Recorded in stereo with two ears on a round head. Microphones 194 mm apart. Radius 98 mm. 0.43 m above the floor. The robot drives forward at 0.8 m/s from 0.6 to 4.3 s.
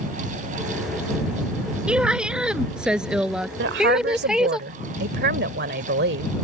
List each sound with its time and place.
1.9 s a woman speaking: 5° right (ahead or behind)
3.6 s a woman speaking: 55° right (ahead or behind); by 6.3 s 50° right (ahead or behind)